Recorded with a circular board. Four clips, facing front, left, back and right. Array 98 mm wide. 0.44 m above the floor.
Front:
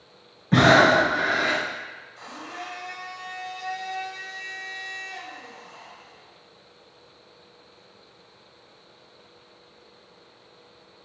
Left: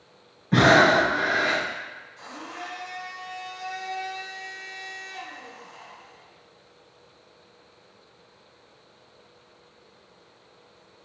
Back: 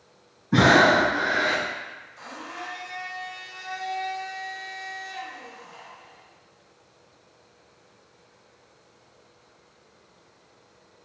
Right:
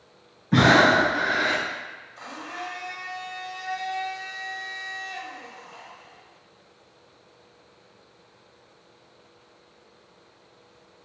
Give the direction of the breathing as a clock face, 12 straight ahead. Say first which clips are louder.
Even, front 1 dB; 12 o'clock.